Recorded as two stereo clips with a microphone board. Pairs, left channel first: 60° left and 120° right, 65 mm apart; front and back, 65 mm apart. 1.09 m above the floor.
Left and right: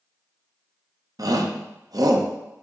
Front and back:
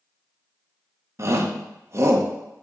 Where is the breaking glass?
No breaking glass in this recording.